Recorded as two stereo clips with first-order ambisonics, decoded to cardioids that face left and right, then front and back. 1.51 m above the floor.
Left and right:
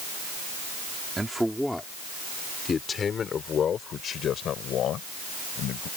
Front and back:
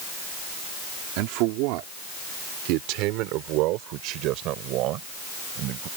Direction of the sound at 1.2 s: 170° right.